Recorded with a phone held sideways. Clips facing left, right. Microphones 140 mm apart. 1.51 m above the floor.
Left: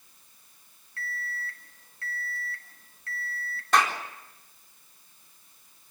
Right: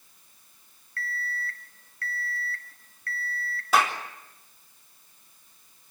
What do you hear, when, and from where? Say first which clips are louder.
1.0 s an alarm clock: right 3 dB; 25° left (ahead or behind), 1.5 m
3.7 s a clap: right 1 dB; 5° right (ahead or behind), 4 m